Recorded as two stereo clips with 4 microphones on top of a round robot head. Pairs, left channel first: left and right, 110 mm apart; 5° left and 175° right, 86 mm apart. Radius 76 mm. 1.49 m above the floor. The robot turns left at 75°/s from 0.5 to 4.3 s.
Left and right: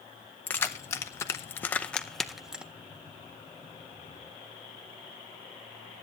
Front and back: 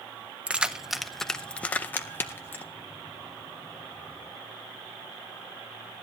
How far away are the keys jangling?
About 0.5 m.